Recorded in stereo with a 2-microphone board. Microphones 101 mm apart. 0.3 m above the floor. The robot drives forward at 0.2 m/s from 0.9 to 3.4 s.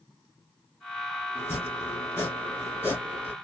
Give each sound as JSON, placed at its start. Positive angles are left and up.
{"t": 1.4, "sound": "chopping", "side_deg": 25, "distance_m": 2.0}